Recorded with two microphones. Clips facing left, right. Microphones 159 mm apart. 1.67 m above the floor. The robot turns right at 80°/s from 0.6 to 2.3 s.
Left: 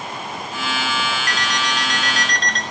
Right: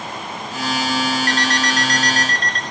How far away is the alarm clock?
About 2.5 m.